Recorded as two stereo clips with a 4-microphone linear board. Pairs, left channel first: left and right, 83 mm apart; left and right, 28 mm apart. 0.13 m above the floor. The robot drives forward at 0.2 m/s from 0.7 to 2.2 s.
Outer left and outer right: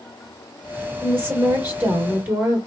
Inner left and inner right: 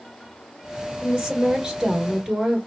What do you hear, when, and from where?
1.0 s a woman speaking: 25° right (ahead or behind), 1.5 m; by 2.6 s 20° right (ahead or behind), 1.7 m